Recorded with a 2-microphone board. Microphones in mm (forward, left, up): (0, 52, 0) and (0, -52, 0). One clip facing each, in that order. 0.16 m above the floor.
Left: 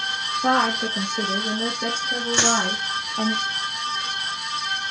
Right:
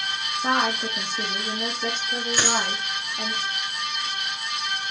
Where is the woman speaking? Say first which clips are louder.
Left 3 dB; 65° left (ahead or behind), 3.5 m; by 3.3 s 70° left (ahead or behind), 4 m.